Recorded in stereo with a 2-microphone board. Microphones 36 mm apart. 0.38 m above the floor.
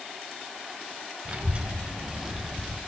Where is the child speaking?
40° right (ahead or behind), 1.8 m; by 2.8 s centre (ahead or behind), 1.3 m.